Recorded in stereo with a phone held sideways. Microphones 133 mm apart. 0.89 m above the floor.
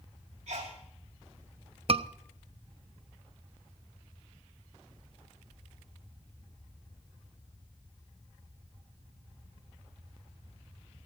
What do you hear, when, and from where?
0.5 s a sneeze: 60° right (ahead or behind), 2.5 m
1.9 s a scream: 50° right (ahead or behind), 0.8 m